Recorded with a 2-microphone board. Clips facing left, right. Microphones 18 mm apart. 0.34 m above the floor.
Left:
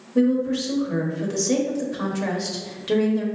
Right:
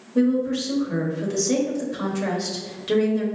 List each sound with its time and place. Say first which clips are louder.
0.1 s a woman speaking: even; centre (ahead or behind), 0.9 m